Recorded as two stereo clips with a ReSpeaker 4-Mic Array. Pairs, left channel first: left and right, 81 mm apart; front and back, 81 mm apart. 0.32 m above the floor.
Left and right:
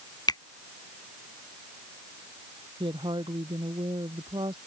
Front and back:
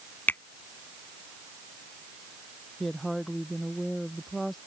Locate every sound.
0.3 s a finger snap: 65° left
2.8 s a woman speaking: 90° right